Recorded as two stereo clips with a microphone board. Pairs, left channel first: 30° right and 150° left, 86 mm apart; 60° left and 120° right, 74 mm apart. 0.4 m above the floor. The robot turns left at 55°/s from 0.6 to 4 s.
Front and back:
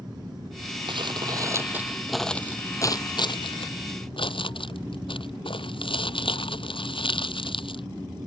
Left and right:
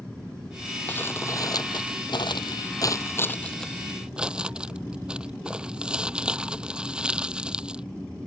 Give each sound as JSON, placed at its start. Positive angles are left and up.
{"t": 0.9, "sound": "crumpling", "azimuth_deg": 130}